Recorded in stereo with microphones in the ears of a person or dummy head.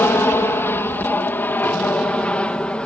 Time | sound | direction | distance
0.0 | an aircraft | 15° left (ahead or behind) | ?